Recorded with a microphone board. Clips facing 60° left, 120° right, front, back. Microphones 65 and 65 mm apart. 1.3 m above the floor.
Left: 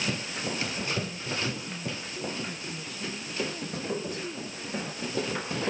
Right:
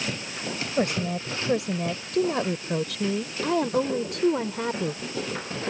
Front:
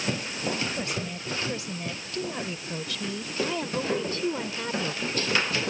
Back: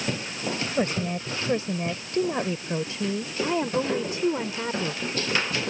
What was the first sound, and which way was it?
A woman speaking, 130° right.